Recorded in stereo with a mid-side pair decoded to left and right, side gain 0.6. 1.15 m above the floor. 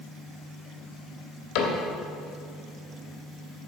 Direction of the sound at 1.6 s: 70° left.